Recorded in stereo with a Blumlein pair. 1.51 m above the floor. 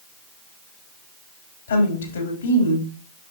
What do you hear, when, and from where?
1.7 s a woman speaking: 70° left, 3.5 m